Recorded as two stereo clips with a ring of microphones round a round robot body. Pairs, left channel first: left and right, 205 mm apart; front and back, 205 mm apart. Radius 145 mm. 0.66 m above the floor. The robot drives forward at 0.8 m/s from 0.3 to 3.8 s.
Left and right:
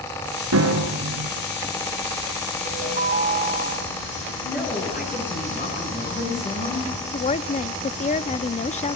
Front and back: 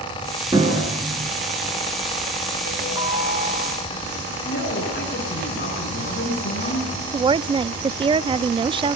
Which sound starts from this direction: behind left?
A woman speaking, at 7.1 s.